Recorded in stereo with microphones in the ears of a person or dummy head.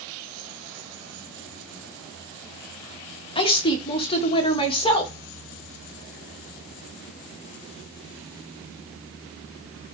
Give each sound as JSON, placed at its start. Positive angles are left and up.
{"t": 3.4, "sound": "a woman speaking", "side_deg": 30, "distance_m": 1.5}